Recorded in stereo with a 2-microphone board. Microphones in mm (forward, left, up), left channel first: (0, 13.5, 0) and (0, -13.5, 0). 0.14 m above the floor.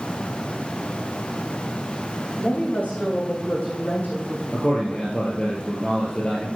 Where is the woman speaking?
75° left (ahead or behind), 8.5 m; by 4.4 s 80° left, 7 m.